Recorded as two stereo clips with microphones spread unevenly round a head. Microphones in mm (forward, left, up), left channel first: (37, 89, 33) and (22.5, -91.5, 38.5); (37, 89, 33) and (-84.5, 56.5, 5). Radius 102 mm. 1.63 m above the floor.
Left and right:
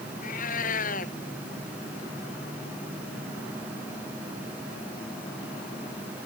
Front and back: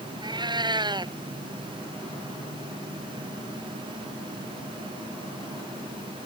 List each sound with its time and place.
0.2 s a cat meowing: 140° left